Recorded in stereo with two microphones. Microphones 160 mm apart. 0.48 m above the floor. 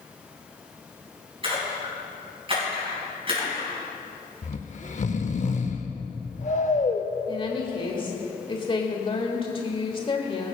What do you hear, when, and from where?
1.4 s a splash: 35° right (ahead or behind), 4.5 m
4.4 s snoring: 45° left (ahead or behind), 0.7 m
7.3 s a woman speaking: 30° left (ahead or behind), 1.5 m